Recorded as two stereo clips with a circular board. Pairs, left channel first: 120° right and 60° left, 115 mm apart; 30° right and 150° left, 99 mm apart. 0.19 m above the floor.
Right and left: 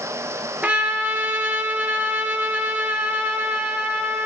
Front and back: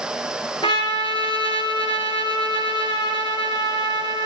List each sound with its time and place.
0.6 s a trumpet: 15° right, 4 m